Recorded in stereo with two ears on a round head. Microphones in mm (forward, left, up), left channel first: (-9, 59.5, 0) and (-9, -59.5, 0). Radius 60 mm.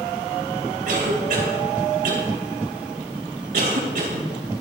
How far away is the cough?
About 3.5 m.